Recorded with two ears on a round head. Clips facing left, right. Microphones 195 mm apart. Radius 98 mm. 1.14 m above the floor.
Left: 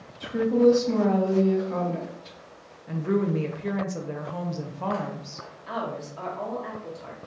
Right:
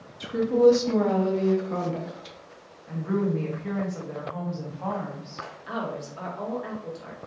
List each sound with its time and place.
0.2 s a woman speaking: 40° right (ahead or behind), 0.8 m
2.9 s a woman speaking: 45° left (ahead or behind), 0.6 m
5.7 s a woman speaking: 15° right (ahead or behind), 1.1 m